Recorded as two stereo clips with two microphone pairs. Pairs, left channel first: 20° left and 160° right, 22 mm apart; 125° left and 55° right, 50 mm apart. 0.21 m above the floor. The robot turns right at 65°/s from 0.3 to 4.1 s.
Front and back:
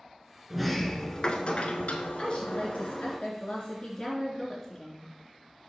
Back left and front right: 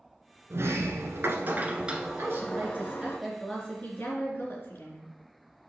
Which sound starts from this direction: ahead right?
A woman speaking, at 2.2 s.